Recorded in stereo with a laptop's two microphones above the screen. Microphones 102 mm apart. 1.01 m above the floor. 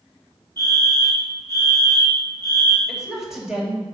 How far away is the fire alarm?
About 3.5 m.